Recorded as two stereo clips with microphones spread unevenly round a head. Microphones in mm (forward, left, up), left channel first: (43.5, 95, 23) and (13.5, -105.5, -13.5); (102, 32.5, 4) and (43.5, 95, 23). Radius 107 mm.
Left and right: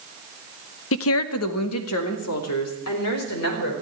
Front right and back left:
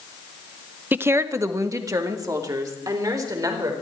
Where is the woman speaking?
65° left, 0.9 m; by 3.7 s 90° left, 5 m.